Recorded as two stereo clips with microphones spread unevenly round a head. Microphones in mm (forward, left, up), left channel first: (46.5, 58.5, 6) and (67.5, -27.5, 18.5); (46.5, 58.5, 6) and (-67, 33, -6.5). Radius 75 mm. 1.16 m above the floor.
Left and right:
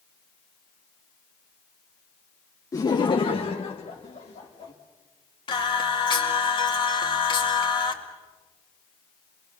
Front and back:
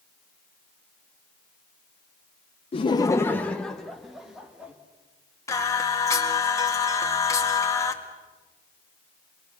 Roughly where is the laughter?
Ahead left.